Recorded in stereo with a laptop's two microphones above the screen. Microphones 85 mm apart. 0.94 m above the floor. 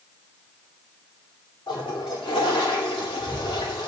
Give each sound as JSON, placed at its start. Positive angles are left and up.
{"t": 1.7, "sound": "a toilet flushing", "side_deg": 80, "distance_m": 2.0}